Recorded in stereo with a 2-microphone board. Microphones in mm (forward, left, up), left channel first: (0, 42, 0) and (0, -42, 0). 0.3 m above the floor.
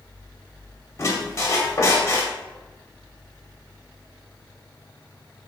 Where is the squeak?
35° left (ahead or behind), 0.6 m.